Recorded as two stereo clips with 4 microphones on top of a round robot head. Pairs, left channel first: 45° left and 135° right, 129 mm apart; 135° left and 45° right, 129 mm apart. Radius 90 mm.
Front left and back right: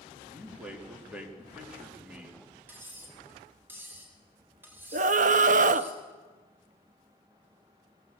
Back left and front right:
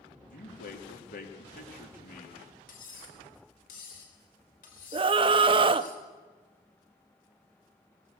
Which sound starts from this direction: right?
A scream, at 4.9 s.